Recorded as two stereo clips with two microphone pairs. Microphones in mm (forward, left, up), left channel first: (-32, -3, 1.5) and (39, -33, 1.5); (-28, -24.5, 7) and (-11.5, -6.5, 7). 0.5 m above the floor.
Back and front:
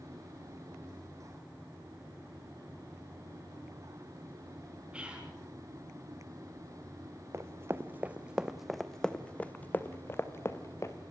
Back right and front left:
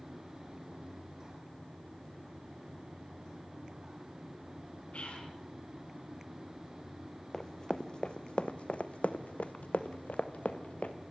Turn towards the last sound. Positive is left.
turn(degrees=-155)